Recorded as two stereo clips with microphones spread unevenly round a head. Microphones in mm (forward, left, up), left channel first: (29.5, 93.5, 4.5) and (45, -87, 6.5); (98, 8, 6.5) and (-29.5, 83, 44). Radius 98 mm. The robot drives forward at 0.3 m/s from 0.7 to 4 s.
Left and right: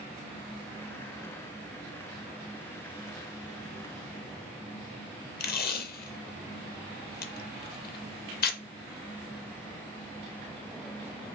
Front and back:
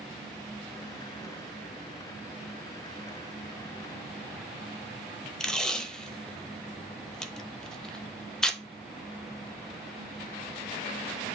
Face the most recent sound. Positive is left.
turn(degrees=60)